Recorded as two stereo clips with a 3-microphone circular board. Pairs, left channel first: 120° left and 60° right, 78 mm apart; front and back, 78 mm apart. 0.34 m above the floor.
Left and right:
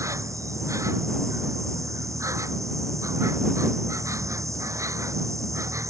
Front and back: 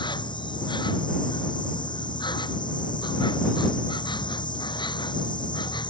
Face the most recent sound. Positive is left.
turn(degrees=-10)